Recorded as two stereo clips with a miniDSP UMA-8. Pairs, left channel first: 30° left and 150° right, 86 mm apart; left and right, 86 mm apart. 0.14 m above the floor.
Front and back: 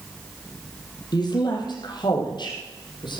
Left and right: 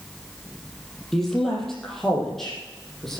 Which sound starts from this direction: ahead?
A woman speaking, at 1.1 s.